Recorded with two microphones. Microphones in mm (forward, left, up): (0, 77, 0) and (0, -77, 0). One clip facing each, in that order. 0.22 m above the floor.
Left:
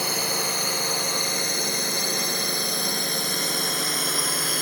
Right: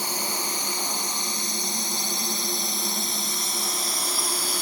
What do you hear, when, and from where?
0.0 s a drone: 70° left (ahead or behind); by 4.6 s 65° left (ahead or behind)